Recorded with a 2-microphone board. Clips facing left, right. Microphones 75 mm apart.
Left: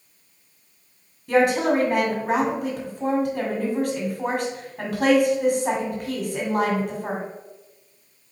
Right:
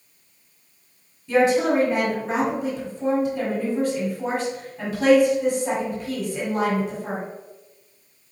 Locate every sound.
1.3 s a woman speaking: 55° left (ahead or behind), 1.5 m